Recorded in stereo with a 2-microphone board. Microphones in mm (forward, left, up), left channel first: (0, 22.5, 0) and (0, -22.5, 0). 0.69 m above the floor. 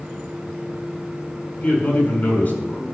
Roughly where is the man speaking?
Left.